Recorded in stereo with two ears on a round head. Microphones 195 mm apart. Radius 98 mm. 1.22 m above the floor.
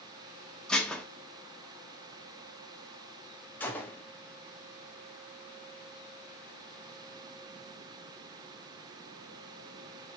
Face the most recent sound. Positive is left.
turn(degrees=10)  # may be behind; listen again after turning